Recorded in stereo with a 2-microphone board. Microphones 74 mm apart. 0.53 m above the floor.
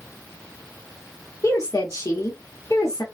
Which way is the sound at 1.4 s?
45° left (ahead or behind).